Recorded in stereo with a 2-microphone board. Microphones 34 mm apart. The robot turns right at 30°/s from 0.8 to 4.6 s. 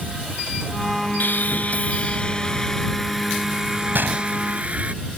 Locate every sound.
1.2 s sawing: 120° left; by 4.9 s 140° right
3.9 s a gunshot: 70° right (ahead or behind); by 4.3 s 60° right (ahead or behind)